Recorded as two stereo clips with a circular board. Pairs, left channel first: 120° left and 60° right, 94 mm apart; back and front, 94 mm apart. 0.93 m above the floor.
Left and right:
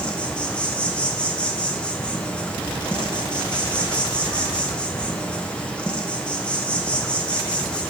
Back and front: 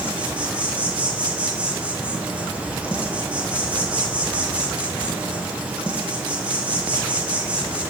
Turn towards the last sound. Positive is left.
turn(degrees=60)